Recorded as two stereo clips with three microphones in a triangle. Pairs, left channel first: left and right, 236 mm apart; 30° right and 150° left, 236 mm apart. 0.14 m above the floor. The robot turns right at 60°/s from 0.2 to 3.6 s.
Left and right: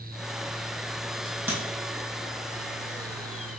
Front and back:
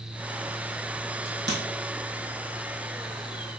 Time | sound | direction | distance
1.2 | a crack | 175° left | 2 m